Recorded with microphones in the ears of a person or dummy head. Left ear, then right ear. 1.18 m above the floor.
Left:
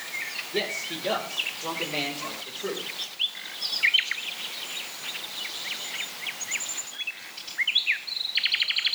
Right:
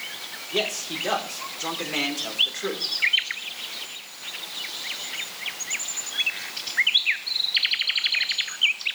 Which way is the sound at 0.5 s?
50° right (ahead or behind).